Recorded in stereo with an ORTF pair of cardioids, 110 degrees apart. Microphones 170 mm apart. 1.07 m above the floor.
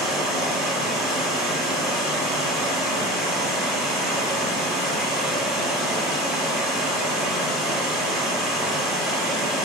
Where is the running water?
5° right, 0.8 m.